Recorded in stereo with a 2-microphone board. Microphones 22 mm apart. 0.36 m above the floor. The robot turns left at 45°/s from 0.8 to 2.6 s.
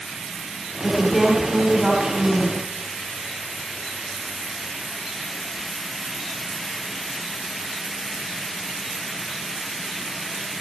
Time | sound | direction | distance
0.8 | a woman speaking | 30° left | 3 m